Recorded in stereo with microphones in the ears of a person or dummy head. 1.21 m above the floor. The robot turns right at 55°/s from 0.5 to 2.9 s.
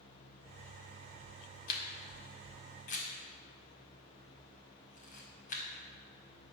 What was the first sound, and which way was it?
A camera shutter, 55° left (ahead or behind).